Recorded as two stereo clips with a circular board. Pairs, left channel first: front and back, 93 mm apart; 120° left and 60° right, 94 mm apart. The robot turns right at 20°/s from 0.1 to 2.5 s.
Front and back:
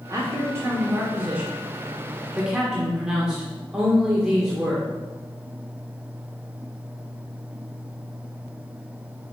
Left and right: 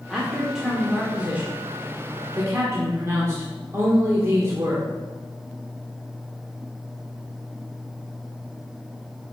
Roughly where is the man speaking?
Behind right.